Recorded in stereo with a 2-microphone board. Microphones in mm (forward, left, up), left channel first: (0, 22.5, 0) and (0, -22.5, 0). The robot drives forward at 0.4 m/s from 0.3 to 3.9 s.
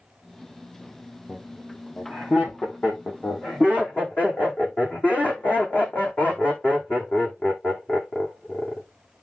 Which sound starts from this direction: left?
Laughter, at 1.3 s.